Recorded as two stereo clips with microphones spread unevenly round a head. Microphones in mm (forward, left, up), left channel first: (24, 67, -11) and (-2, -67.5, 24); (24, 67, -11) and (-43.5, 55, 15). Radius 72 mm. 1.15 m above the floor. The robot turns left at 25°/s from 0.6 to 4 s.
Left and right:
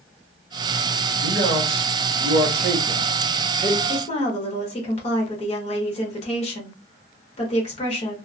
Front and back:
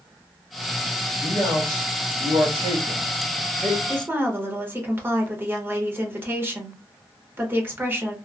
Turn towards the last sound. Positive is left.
turn(degrees=130)